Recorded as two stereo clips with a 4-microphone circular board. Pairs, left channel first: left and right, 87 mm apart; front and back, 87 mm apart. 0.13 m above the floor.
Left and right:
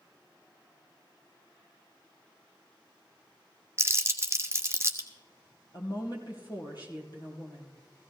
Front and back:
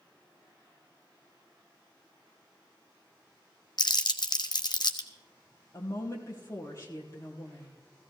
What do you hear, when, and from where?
3.8 s crumpling: 35° right, 1.1 m
5.7 s a woman speaking: 50° left, 3.5 m